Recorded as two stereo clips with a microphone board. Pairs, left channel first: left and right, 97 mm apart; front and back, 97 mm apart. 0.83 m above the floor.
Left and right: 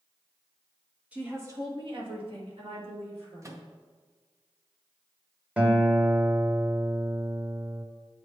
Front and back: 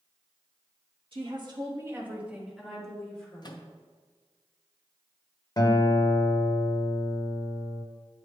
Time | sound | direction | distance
1.1 | a woman speaking | 165° right | 1.1 m
3.4 | a microwave | 35° right | 0.6 m
5.6 | a guitar | 20° right | 0.7 m